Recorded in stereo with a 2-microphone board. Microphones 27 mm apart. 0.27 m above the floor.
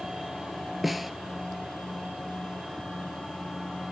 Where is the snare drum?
5° right (ahead or behind), 0.7 m.